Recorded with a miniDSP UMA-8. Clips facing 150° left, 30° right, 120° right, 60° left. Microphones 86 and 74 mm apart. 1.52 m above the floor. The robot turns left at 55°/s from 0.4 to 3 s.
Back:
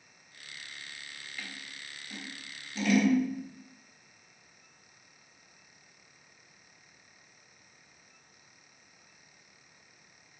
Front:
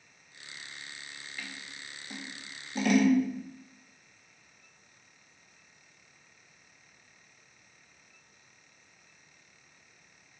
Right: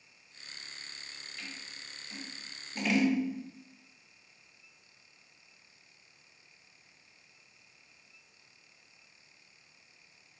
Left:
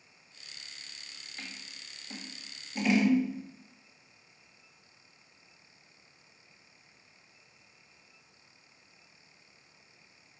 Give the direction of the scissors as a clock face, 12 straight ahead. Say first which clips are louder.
Front 1 dB, left 1 dB; 10 o'clock.